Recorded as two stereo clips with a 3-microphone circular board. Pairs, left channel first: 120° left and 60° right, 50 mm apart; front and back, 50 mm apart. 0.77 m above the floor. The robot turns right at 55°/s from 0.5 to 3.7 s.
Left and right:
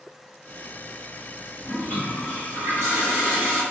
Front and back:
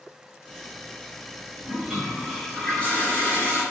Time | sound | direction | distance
1.6 | a toilet flushing | 120° right | 1.1 m